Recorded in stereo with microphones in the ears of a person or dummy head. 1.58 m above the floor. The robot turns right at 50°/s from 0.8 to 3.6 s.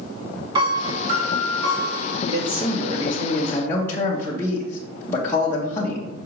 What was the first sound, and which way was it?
A piano, 155° right.